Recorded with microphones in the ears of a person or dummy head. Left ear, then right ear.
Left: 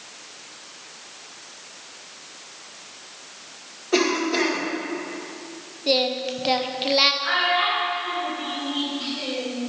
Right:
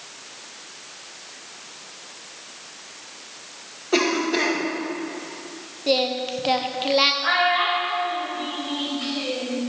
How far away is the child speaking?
About 4 m.